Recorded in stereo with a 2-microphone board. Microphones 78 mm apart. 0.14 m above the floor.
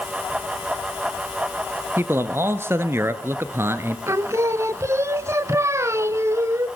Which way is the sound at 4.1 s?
40° right (ahead or behind).